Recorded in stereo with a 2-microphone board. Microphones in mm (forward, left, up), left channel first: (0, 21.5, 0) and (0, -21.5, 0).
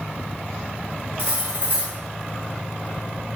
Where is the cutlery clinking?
50° right (ahead or behind), 1.2 m.